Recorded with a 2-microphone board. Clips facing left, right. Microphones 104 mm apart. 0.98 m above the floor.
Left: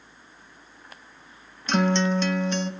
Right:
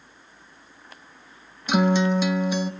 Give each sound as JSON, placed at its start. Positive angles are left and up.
{"t": 1.7, "sound": "a guitar", "side_deg": -10, "distance_m": 0.7}